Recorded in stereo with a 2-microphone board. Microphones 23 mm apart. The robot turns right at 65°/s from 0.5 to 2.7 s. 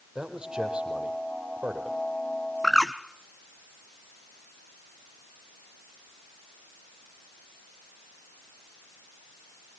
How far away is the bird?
About 1.3 m.